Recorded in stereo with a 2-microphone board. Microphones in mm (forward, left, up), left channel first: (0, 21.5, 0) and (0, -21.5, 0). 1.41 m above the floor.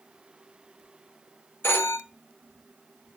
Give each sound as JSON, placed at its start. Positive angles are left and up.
{"t": 1.6, "sound": "a phone ringing", "side_deg": 60, "distance_m": 1.5}